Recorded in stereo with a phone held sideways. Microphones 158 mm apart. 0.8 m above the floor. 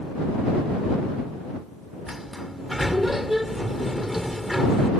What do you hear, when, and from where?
2.1 s a sliding door: centre (ahead or behind)